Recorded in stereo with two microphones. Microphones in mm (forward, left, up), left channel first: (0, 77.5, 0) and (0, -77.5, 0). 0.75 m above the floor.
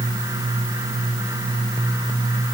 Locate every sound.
Only background noise.